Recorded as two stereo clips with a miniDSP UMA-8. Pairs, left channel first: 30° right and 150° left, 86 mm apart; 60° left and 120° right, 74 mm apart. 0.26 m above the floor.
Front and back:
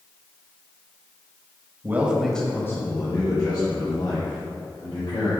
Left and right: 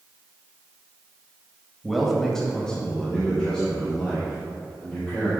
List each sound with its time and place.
1.8 s a man speaking: 150° left, 1.0 m; by 5.3 s 15° right, 3.5 m